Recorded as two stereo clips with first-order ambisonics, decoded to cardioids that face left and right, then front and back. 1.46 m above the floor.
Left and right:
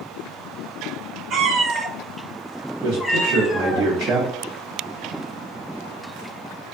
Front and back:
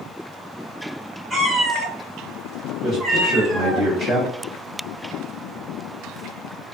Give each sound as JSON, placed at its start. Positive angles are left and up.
{"t": 1.3, "sound": "a cat meowing", "azimuth_deg": -120, "distance_m": 0.8}
{"t": 2.8, "sound": "a man speaking", "azimuth_deg": -115, "distance_m": 0.7}